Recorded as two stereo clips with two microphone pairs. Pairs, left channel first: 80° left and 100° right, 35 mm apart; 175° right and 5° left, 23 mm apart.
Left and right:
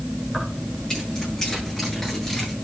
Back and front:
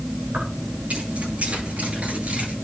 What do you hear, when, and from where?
0.3 s keys jangling: 15° left, 9.5 m; by 2.5 s 5° left, 10 m